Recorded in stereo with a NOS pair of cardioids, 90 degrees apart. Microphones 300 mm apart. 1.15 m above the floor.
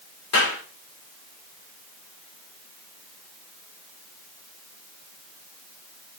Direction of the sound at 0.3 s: 55° left.